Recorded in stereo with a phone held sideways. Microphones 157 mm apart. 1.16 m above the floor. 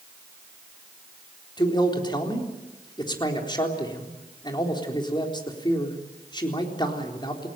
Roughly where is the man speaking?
Left.